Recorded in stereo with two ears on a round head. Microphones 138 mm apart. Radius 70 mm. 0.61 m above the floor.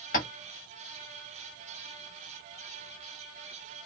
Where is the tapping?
55° left (ahead or behind), 1.2 m.